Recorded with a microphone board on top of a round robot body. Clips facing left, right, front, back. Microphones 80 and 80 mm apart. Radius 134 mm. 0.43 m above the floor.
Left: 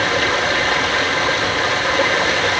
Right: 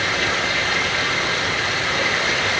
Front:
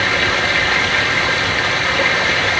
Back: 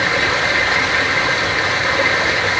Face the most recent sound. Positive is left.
turn(degrees=115)